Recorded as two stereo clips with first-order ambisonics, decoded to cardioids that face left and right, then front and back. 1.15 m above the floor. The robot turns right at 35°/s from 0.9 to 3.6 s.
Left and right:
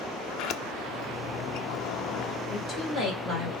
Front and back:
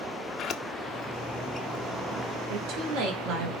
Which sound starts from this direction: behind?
A woman speaking, at 2.5 s.